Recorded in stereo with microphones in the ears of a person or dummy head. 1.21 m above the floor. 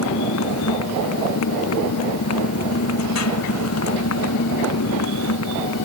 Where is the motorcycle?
85° left.